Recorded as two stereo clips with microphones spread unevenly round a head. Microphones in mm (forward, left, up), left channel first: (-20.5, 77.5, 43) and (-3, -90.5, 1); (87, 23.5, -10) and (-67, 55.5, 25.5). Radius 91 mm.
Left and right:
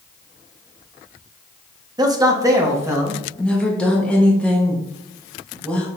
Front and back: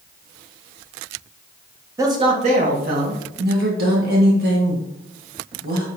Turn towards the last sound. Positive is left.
turn(degrees=-170)